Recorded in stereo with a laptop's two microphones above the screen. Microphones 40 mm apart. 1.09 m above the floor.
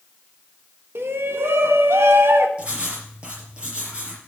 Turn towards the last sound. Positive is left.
turn(degrees=-30)  # may be behind; listen again after turning